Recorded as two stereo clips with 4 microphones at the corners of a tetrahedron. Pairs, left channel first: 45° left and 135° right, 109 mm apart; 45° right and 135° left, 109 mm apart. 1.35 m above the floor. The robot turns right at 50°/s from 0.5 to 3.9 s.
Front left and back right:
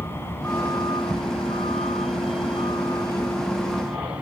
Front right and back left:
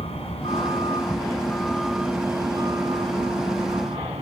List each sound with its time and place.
0.0 s a vehicle: 25° right; by 4.2 s 145° left